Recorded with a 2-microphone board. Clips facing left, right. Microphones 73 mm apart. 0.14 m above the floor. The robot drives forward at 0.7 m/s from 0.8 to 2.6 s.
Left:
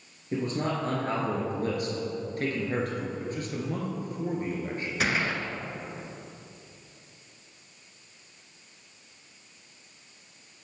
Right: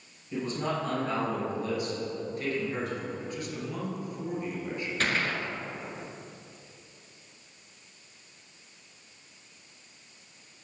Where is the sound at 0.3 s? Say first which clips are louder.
Left 2 dB; 45° left (ahead or behind), 2.5 m; by 3.1 s 55° left (ahead or behind), 2 m.